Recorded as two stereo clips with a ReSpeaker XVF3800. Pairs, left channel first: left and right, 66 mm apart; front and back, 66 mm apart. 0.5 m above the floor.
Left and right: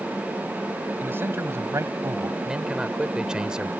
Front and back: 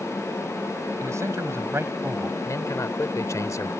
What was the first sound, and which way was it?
A man speaking, 145° right.